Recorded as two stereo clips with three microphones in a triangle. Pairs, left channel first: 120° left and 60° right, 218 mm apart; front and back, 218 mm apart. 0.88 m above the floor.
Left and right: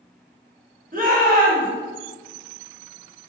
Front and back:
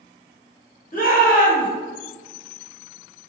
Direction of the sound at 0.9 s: 30° right.